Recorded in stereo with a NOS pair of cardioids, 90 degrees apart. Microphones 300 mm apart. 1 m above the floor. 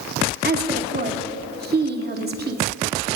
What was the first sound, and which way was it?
A woman speaking, 35° right.